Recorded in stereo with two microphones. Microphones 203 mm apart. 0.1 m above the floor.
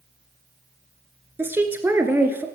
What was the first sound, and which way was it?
A woman speaking, 10° right (ahead or behind).